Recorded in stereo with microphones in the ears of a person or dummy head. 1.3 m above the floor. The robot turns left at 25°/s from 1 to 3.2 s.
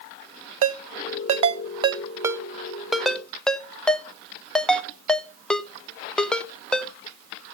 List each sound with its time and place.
0.6 s a ringtone: 50° right (ahead or behind), 0.7 m; by 6.9 s 5° left (ahead or behind), 0.7 m